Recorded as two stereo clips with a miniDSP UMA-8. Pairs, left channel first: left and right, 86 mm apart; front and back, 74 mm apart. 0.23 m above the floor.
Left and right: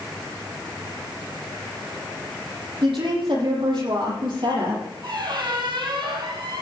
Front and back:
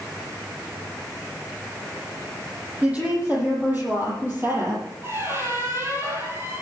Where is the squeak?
125° right, 4 m.